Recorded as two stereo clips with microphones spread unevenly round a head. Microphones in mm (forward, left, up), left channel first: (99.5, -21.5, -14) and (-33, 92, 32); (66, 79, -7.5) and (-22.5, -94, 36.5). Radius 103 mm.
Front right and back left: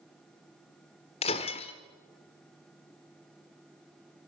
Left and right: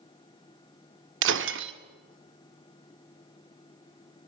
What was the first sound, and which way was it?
Breaking glass, 110° right.